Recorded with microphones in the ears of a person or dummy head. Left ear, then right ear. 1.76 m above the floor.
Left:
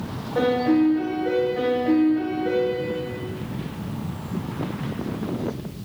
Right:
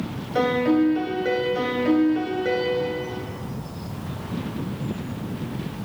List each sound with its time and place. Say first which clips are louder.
0.3 s a piano: even; 60° right (ahead or behind), 1.5 m